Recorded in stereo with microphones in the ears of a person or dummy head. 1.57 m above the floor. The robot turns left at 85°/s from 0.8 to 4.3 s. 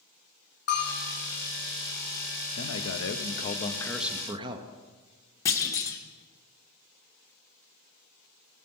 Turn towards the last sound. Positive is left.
turn(degrees=15)  # may be behind; listen again after turning